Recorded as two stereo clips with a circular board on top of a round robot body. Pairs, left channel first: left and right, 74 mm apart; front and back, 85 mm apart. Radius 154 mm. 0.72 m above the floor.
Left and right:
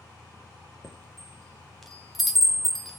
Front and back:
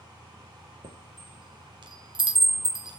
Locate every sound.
0.8 s a chime: straight behind, 2.5 m